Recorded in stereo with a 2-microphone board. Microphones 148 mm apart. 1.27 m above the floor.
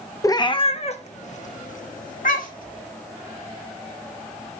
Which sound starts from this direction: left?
A cat meowing, at 0.2 s.